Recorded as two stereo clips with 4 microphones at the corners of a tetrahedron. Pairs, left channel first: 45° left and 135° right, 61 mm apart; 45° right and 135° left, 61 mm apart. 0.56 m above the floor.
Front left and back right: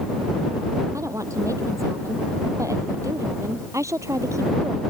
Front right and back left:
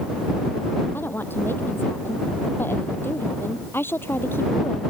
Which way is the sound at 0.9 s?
100° right.